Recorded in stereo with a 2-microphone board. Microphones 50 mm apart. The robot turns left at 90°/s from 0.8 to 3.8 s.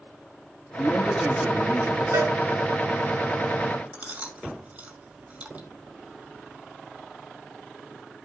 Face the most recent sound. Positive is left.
turn(degrees=-30)  # may be behind; listen again after turning